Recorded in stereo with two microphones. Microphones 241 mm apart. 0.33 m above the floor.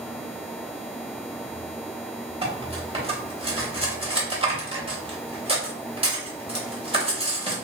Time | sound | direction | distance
2.4 | cutlery clinking | 25° right (ahead or behind) | 0.9 m